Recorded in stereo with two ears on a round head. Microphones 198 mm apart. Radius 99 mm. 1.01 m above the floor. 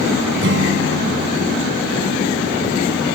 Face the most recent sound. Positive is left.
turn(degrees=-55)  # may be behind; listen again after turning